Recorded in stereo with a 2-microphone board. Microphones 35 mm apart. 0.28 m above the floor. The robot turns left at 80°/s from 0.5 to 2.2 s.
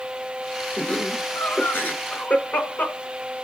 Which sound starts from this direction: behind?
Laughter, at 0.8 s.